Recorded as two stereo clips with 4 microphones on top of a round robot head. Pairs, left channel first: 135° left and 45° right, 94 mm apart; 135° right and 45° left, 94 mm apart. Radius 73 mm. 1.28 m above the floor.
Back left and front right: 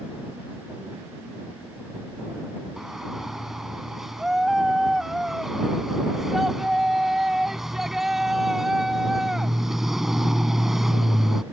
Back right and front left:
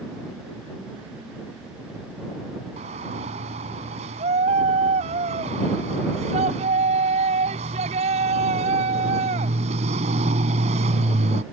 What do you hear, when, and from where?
2.8 s a shout: 45° left